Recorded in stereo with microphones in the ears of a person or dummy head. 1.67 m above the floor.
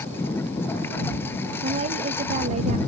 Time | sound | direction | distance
0.0 | a lawn mower | 10° left (ahead or behind) | ?
1.6 | a woman speaking | 35° right (ahead or behind) | ?